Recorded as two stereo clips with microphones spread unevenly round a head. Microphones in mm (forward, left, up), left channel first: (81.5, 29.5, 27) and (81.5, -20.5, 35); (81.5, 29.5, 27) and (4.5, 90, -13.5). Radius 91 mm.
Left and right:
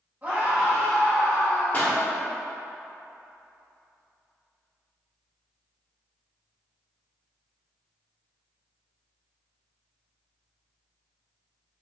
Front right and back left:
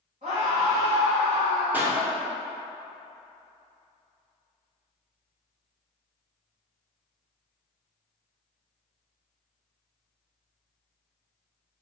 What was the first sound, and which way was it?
A scream, 160° right.